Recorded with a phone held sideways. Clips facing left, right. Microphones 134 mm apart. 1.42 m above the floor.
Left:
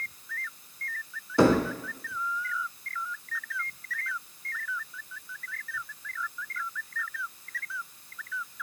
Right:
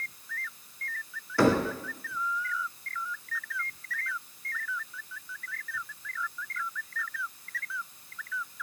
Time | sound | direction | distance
1.4 | knocking | 20° left (ahead or behind) | 1.0 m